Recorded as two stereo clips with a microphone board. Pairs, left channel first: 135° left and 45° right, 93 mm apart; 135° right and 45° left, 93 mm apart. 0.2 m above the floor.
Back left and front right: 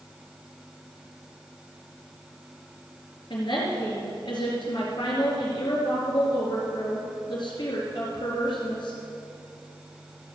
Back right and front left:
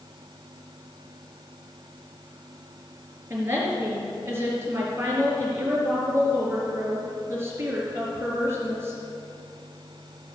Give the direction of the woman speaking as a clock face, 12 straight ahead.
8 o'clock.